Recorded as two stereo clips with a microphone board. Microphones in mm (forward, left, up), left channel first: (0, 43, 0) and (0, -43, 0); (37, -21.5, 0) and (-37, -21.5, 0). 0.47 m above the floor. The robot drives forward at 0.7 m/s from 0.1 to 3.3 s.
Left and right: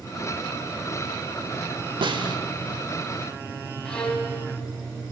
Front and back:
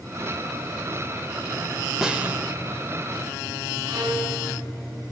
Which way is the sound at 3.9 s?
170° left.